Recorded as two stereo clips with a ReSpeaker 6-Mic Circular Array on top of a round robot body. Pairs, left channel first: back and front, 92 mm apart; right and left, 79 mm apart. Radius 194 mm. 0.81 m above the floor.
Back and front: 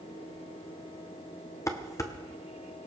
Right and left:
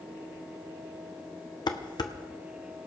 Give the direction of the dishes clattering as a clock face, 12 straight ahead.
4 o'clock.